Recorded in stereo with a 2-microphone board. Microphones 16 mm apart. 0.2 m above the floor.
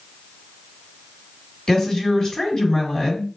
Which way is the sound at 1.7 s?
35° left (ahead or behind).